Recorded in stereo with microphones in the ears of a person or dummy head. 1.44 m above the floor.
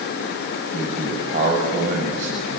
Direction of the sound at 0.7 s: 45° right (ahead or behind).